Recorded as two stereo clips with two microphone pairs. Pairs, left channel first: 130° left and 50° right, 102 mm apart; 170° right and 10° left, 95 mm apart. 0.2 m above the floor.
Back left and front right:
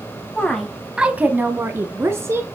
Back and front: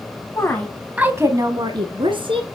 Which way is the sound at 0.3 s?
165° right.